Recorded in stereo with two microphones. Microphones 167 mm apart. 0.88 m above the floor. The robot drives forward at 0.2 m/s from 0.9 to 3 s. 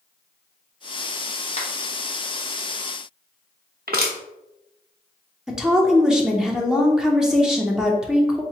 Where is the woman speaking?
5° right (ahead or behind), 0.6 m.